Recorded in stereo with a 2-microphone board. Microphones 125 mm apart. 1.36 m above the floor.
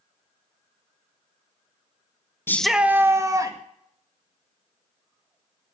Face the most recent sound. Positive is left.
turn(degrees=-30)  # may be behind; listen again after turning